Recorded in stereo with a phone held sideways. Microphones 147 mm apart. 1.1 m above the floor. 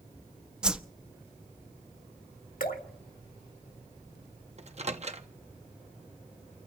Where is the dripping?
70° left (ahead or behind), 1.7 m.